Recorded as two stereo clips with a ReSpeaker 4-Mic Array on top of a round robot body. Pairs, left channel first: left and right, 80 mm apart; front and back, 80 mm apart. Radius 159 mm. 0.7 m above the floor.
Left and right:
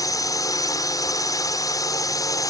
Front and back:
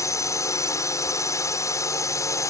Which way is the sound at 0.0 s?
50° left.